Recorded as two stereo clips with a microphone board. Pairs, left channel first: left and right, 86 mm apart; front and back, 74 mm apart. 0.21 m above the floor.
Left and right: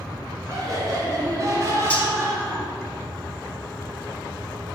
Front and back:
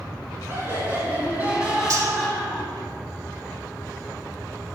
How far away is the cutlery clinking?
About 1.0 m.